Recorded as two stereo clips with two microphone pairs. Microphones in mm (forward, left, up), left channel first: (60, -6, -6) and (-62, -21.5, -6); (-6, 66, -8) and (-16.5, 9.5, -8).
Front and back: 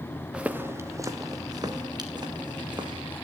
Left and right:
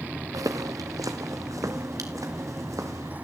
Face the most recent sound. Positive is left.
turn(degrees=-120)